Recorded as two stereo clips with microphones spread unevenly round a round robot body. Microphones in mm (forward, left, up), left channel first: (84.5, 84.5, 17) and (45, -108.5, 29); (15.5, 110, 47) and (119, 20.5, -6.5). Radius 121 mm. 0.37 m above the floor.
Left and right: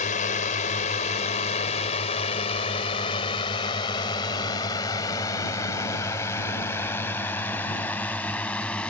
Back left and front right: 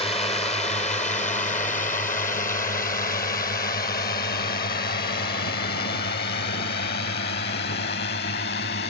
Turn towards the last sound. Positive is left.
turn(degrees=165)